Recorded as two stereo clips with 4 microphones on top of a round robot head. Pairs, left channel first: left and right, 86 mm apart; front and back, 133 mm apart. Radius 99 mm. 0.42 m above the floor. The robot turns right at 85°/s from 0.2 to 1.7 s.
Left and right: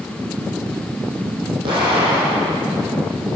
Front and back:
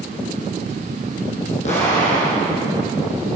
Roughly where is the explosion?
Ahead right.